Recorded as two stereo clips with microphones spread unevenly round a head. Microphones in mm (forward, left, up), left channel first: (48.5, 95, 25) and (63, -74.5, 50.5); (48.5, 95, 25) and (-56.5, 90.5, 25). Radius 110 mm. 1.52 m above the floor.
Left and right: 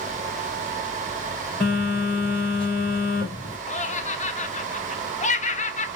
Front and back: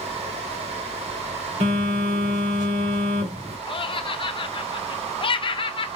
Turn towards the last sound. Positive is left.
turn(degrees=45)